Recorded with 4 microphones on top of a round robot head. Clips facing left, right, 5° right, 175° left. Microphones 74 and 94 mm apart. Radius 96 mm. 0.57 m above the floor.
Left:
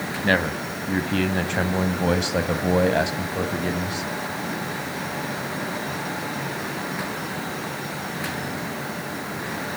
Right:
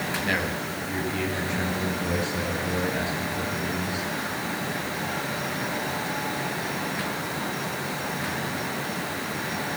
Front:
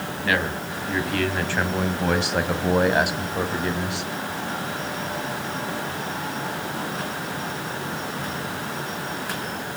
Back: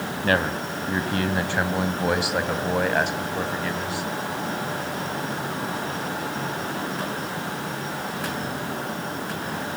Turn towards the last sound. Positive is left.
turn(degrees=60)